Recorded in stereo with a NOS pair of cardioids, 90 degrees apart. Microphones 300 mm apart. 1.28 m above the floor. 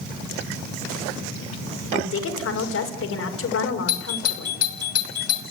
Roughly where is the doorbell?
Ahead left.